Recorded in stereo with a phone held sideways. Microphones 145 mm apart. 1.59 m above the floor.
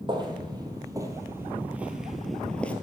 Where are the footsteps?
35° right (ahead or behind), 2.5 m; by 2.7 s 10° left (ahead or behind), 1.5 m.